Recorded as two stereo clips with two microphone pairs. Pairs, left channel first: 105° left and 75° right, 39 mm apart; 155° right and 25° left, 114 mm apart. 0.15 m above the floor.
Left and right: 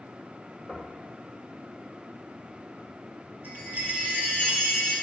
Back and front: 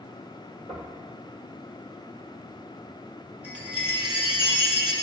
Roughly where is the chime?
Ahead right.